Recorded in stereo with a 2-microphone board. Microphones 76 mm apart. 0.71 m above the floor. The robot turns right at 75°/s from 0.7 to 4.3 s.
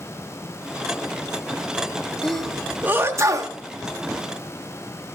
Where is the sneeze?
15° left (ahead or behind), 1.2 m; by 3.5 s 50° right (ahead or behind), 1.2 m.